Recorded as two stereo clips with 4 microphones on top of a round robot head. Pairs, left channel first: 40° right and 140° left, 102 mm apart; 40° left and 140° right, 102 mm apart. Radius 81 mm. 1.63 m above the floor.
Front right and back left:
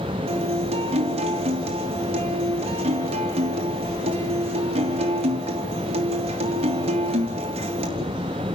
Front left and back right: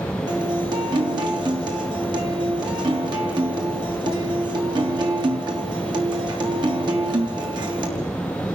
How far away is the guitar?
About 3 m.